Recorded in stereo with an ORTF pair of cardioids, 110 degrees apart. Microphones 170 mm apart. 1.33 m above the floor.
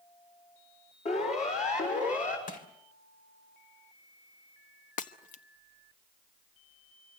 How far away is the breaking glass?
About 1.2 m.